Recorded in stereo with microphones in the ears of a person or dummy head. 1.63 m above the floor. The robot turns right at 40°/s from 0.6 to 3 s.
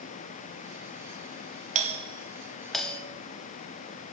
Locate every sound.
1.8 s a doorbell: 35° right (ahead or behind), 0.9 m; by 3.0 s 10° left (ahead or behind), 0.9 m